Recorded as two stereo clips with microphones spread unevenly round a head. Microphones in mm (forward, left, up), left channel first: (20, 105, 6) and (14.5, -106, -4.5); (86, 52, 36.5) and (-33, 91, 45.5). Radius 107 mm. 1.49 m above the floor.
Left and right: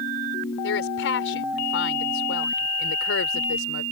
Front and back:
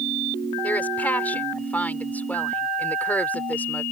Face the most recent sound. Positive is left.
turn(degrees=60)